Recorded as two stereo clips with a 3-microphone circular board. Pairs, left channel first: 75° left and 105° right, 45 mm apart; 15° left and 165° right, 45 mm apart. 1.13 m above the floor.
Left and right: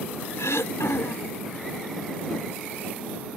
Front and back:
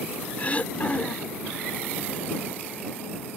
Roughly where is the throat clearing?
Left.